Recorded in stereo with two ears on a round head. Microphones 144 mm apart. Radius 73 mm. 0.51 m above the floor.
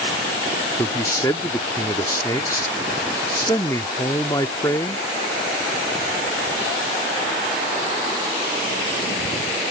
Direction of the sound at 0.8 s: 20° left (ahead or behind).